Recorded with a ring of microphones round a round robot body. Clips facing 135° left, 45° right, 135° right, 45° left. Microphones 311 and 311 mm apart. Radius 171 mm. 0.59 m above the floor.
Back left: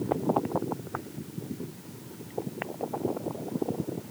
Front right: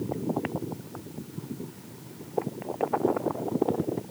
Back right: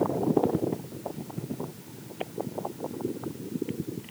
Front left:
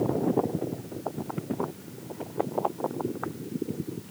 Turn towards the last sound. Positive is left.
No sound to turn to.